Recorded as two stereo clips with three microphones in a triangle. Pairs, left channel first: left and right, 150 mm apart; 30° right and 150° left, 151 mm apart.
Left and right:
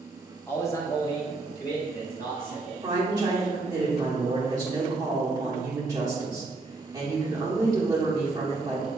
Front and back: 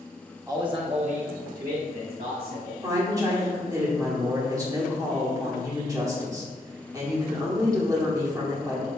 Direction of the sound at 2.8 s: 150° right.